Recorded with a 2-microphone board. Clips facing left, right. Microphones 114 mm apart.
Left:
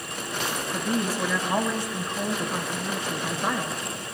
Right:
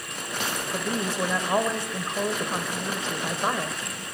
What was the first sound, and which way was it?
A woman speaking, 25° right (ahead or behind).